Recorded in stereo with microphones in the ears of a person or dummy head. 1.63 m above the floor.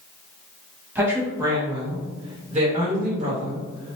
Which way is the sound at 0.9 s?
15° right (ahead or behind).